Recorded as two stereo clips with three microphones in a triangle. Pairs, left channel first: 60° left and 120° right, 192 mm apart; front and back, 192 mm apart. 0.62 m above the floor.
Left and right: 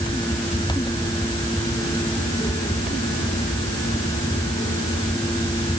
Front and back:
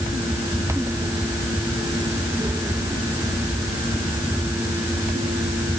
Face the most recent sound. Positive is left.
No sound to turn to.